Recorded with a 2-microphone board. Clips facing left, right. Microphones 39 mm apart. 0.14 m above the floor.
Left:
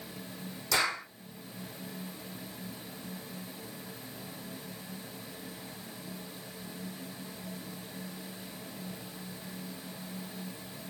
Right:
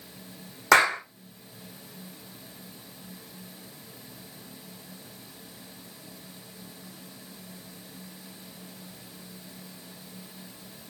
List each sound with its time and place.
0.7 s a clap: 80° right, 5.5 m